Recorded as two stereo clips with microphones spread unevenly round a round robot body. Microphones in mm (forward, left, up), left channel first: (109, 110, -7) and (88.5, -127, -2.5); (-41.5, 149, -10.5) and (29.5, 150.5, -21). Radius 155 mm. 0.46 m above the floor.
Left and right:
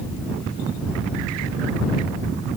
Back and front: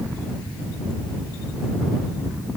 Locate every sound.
Only background noise.